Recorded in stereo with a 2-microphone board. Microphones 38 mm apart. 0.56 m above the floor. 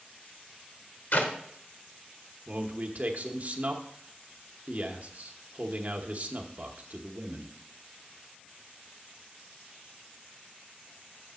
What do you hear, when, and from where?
1.1 s a clap: 70° left (ahead or behind), 1.2 m
2.5 s a man speaking: 45° right (ahead or behind), 0.8 m